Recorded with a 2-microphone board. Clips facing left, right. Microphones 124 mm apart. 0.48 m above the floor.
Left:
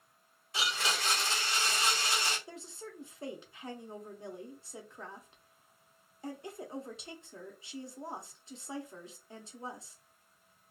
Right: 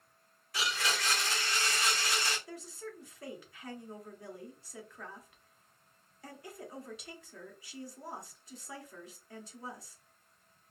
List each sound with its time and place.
0.5 s a blender: 25° left (ahead or behind), 1.2 m
2.5 s a woman speaking: 25° left (ahead or behind), 0.7 m